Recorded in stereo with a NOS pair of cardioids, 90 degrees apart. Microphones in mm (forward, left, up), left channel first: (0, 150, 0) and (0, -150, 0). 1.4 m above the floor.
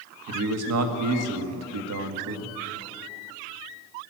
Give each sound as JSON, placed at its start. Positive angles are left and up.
{"t": 0.3, "sound": "a man speaking", "azimuth_deg": -60, "distance_m": 1.9}